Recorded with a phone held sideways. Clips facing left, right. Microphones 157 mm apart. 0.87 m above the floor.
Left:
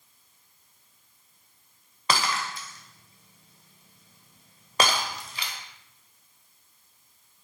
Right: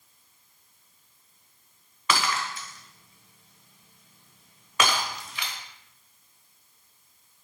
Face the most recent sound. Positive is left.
turn(degrees=35)  # may be behind; listen again after turning